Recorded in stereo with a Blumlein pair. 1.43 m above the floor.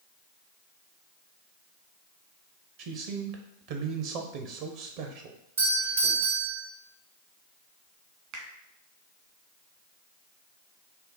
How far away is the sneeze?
No sneeze in this recording.